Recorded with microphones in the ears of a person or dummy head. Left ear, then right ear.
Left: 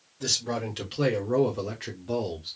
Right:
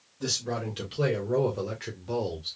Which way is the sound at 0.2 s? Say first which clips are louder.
Left 2 dB; 15° left (ahead or behind).